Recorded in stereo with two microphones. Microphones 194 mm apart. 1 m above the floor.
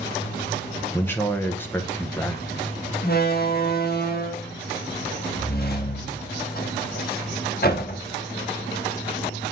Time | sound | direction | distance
0.9 | a man speaking | 10° left (ahead or behind) | 0.9 m
3.0 | a door slam | 50° left (ahead or behind) | 1.3 m